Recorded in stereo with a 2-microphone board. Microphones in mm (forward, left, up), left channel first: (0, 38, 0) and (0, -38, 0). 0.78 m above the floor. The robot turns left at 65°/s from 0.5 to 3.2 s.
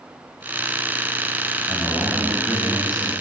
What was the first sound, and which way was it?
A man speaking, 150° left.